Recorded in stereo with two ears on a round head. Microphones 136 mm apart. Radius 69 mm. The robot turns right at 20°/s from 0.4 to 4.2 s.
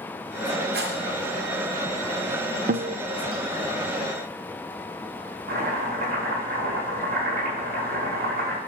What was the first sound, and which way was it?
A rattle, 75° right (ahead or behind).